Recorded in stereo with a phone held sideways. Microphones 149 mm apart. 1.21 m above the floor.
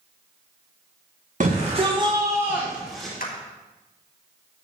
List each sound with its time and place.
1.4 s a shout: 60° right (ahead or behind), 1.4 m; by 3.1 s centre (ahead or behind), 2.5 m
3.2 s a clap: 75° left (ahead or behind), 1.9 m